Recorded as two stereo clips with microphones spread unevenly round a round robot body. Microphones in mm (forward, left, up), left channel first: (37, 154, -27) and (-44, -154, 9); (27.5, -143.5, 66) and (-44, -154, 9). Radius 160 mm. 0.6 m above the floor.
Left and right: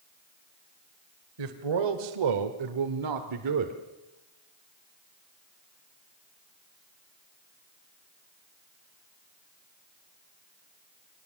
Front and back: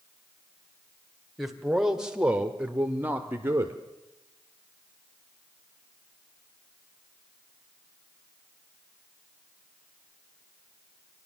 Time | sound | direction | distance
1.4 | a man speaking | 95° right | 2 m